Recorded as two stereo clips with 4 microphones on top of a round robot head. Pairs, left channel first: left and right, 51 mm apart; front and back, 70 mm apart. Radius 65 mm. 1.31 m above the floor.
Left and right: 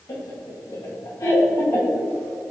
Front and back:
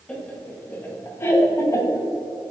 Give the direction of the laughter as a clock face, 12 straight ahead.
10 o'clock.